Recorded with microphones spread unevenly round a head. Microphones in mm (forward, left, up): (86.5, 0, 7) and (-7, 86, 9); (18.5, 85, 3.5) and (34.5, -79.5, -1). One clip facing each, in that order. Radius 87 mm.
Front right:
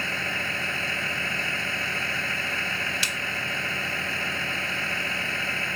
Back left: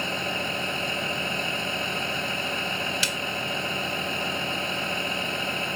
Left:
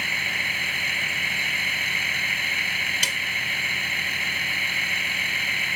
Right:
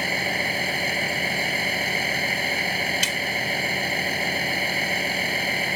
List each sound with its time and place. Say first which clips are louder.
0.0 s a vehicle: back left 3 dB, right 9 dB; 145° right
3.0 s a snare drum: back left 3 dB, right 6 dB; 150° left